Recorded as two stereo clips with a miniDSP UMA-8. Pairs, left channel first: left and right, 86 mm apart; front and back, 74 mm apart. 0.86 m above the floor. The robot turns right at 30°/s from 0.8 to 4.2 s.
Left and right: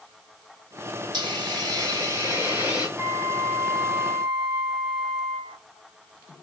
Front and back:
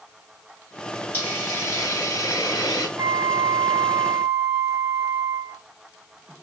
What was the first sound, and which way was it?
A hiss, 65° right.